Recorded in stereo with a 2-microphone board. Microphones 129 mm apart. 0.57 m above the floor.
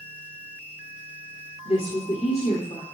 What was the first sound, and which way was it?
A woman speaking, 45° left (ahead or behind).